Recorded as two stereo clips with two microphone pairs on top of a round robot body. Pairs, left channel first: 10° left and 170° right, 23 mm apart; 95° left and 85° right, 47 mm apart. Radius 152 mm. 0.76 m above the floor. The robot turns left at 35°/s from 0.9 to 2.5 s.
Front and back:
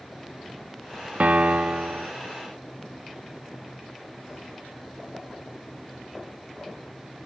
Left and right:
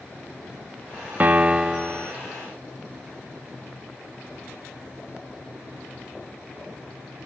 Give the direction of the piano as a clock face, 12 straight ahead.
5 o'clock.